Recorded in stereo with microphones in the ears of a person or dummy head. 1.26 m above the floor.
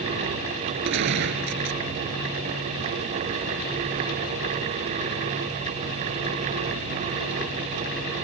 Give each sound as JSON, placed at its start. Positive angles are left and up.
{"t": 0.8, "sound": "a gunshot", "side_deg": -60}